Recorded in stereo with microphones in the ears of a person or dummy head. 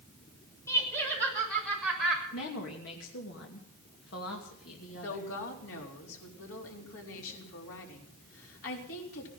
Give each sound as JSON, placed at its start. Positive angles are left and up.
{"t": 0.7, "sound": "laughter", "side_deg": 20, "distance_m": 6.0}
{"t": 2.3, "sound": "a woman speaking", "side_deg": 75, "distance_m": 2.5}
{"t": 4.9, "sound": "a woman speaking", "side_deg": 80, "distance_m": 4.0}